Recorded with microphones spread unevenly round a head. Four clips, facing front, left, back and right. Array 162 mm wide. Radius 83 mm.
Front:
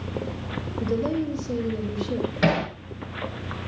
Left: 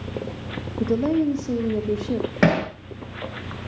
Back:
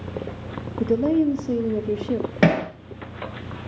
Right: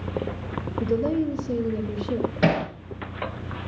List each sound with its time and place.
0.8 s a woman speaking: 145° left, 2.5 m
2.4 s hammering: 145° left, 5.5 m